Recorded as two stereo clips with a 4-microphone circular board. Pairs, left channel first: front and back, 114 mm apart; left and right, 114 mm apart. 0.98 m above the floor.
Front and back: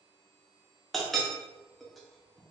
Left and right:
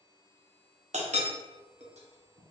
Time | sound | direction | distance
0.9 | a clink | 90° right | 0.7 m